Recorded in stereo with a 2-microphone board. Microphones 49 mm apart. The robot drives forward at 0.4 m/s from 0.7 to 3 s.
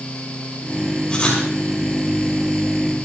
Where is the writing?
20° left (ahead or behind), 5 m.